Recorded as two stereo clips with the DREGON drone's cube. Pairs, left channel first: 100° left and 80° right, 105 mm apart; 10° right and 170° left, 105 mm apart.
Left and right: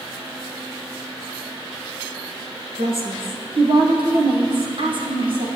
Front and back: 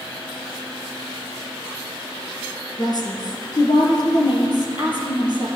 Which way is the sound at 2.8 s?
55° right.